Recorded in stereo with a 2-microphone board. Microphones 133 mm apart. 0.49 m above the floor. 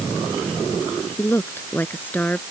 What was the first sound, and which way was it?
A woman speaking, 20° left (ahead or behind).